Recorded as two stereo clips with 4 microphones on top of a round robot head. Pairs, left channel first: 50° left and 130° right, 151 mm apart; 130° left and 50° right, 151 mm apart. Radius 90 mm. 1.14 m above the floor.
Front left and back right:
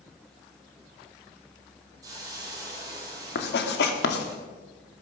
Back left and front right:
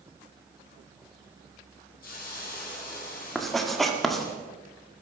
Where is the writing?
40° left, 1.9 m.